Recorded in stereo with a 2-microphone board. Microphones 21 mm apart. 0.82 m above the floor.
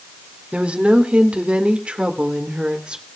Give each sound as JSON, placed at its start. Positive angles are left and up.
{"t": 0.5, "sound": "a woman speaking", "side_deg": -75, "distance_m": 2.0}